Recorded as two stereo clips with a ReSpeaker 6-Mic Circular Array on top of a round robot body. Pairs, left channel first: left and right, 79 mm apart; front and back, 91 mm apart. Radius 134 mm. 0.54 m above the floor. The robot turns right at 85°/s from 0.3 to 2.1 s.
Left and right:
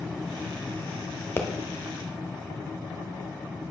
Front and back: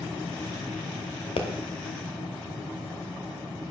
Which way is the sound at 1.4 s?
25° left.